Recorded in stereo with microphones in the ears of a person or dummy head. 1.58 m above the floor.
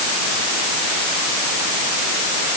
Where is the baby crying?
I don't hear a baby crying.